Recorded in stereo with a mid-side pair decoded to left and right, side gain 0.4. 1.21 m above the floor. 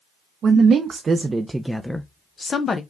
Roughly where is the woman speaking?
Ahead right.